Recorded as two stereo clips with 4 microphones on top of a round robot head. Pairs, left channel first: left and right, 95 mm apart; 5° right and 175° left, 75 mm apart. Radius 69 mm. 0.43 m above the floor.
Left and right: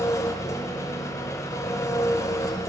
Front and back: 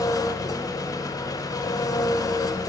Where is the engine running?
30° left, 0.8 m.